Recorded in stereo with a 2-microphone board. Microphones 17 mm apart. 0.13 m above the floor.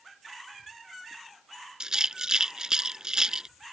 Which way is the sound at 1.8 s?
40° right (ahead or behind).